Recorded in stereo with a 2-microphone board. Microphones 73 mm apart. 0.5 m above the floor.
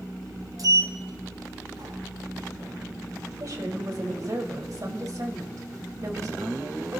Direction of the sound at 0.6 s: 55° right (ahead or behind).